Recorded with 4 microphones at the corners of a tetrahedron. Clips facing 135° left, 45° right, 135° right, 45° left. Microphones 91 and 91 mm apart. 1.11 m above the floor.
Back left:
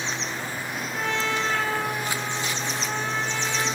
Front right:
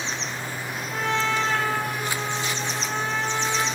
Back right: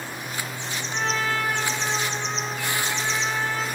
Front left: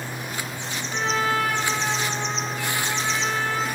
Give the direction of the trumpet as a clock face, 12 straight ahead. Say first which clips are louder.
Front right 3 dB, front left 2 dB; 1 o'clock.